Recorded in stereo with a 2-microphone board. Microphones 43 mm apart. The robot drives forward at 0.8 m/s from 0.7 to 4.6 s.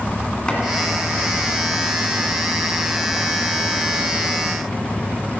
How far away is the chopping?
About 1.7 m.